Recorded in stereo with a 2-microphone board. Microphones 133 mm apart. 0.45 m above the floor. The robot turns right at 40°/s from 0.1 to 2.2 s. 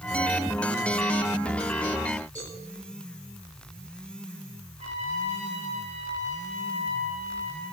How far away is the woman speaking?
I don't hear a woman speaking.